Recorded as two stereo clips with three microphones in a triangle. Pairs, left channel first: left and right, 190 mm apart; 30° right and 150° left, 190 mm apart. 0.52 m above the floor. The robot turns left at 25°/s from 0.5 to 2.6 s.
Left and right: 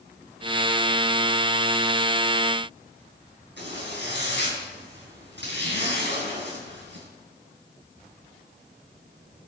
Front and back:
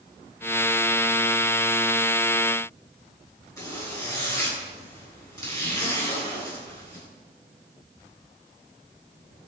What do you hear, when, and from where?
3.6 s a zipper: 100° right, 8 m